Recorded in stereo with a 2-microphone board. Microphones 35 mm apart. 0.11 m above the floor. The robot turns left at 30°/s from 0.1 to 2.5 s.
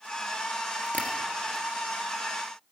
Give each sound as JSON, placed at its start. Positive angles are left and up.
{"t": 0.9, "sound": "tapping", "side_deg": 45, "distance_m": 1.4}